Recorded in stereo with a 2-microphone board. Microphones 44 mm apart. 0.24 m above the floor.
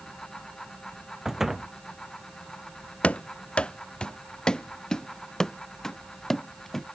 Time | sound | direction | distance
1.2 | a door slam | 5° right (ahead or behind) | ?
3.0 | running footsteps | 30° left (ahead or behind) | ?